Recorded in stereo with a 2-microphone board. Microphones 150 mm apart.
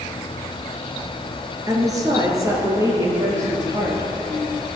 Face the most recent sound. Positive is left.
turn(degrees=-20)  # may be behind; listen again after turning